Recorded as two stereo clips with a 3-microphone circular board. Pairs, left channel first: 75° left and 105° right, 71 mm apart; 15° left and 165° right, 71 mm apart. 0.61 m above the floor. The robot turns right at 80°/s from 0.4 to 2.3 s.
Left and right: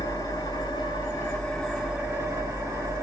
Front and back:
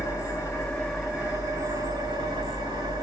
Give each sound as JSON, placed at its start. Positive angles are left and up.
{"t": 0.0, "sound": "an engine running", "azimuth_deg": 65, "distance_m": 2.0}